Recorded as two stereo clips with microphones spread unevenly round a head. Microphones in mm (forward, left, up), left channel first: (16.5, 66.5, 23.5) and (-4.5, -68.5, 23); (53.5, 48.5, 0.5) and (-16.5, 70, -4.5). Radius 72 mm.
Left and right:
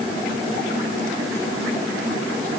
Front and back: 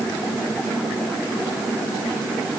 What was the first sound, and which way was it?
Only background noise.